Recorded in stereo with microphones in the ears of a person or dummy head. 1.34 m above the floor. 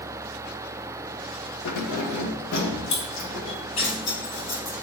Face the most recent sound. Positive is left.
turn(degrees=50)  # may be behind; listen again after turning